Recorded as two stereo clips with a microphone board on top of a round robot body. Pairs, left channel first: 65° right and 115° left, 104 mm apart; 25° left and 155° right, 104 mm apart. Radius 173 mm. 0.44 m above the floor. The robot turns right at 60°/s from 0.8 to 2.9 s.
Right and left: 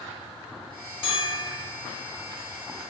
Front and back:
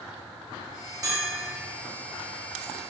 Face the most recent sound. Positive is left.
turn(degrees=10)